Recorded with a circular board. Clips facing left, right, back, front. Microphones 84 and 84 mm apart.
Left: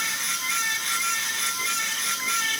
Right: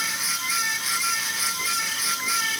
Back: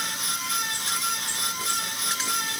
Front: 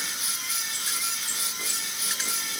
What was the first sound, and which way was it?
Only background noise.